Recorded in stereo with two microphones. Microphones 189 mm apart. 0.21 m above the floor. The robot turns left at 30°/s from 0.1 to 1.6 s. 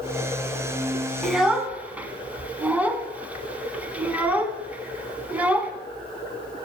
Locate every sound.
1.2 s a child speaking: centre (ahead or behind), 1.0 m; by 5.7 s 10° right (ahead or behind), 1.0 m